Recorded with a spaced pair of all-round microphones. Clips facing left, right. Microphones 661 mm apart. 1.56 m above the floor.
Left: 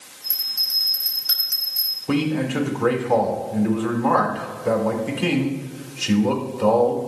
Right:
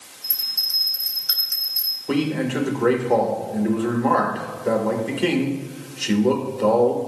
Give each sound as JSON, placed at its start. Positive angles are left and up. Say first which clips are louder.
{"t": 0.2, "sound": "a bell", "louder": "even", "side_deg": -35, "distance_m": 3.0}
{"t": 2.1, "sound": "a man speaking", "louder": "even", "side_deg": 35, "distance_m": 1.8}